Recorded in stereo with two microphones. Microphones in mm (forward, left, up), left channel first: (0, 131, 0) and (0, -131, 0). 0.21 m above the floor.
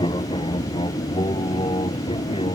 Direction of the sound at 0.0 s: 20° left (ahead or behind).